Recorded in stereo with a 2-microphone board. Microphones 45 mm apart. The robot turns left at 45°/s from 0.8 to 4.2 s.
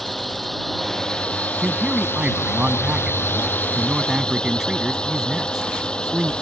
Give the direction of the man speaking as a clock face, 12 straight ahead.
1 o'clock.